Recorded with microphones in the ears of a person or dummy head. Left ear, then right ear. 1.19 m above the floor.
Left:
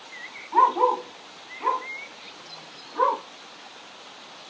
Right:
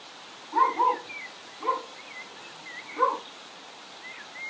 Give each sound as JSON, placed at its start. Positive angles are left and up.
{"t": 0.5, "sound": "a dog barking", "side_deg": 35, "distance_m": 1.8}